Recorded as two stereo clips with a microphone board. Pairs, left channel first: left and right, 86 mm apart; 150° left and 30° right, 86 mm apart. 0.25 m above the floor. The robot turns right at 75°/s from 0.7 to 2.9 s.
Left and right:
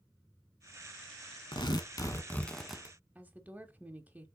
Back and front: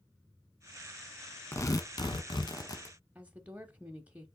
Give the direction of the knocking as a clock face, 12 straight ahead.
No knocking in this recording.